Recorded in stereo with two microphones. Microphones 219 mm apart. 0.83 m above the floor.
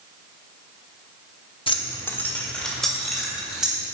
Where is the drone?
No drone in this recording.